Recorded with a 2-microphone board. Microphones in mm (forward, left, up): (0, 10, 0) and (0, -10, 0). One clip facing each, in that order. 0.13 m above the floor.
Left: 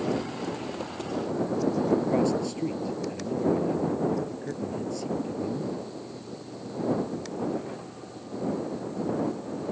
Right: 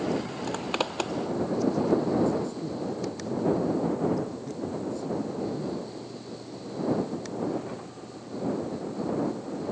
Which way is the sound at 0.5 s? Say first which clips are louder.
Right 4 dB; 65° right (ahead or behind).